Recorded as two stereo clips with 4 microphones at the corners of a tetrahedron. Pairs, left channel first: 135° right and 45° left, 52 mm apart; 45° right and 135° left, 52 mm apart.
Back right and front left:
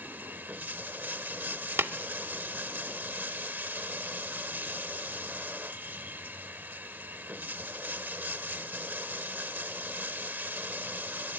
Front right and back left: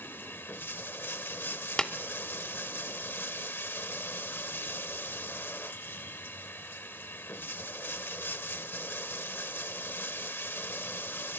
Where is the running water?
5° right, 0.8 m.